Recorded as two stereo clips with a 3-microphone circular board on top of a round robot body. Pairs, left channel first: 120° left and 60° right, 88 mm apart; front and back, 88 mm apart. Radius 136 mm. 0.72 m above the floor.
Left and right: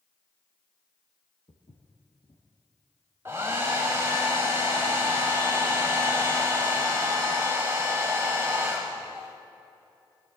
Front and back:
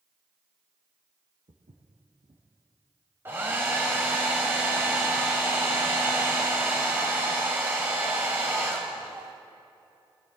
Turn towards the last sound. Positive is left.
turn(degrees=-125)